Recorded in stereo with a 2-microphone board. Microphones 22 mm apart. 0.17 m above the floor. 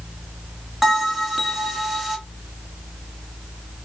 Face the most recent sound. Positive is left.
turn(degrees=-10)  # may be behind; listen again after turning